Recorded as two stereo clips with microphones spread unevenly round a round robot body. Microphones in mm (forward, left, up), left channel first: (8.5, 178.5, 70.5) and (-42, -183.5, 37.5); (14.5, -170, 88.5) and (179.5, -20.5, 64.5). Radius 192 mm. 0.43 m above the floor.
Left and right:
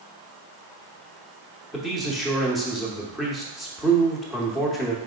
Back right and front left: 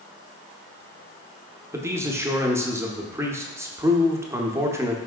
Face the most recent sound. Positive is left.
turn(degrees=-15)